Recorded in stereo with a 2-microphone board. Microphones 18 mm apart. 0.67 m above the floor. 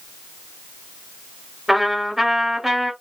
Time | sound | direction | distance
1.7 | a trumpet | 25° right (ahead or behind) | 1.7 m